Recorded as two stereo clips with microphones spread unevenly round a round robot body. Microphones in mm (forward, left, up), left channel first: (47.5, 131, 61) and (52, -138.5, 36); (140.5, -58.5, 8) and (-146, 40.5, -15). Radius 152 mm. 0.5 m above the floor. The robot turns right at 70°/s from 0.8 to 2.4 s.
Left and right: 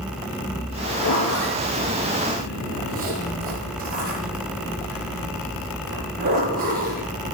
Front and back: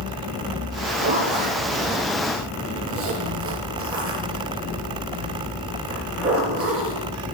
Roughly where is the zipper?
Left.